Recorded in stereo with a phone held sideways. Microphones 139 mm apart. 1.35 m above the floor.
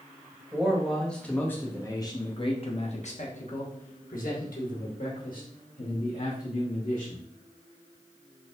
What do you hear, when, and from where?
0.5 s a man speaking: 5° right (ahead or behind), 1.5 m; by 7.2 s 75° left (ahead or behind), 2.5 m